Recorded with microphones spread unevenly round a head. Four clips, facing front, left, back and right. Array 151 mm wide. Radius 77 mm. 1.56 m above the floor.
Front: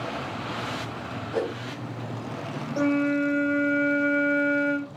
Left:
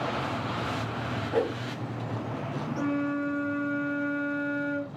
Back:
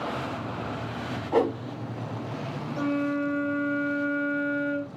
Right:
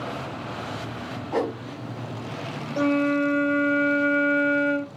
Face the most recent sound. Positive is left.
turn(degrees=-50)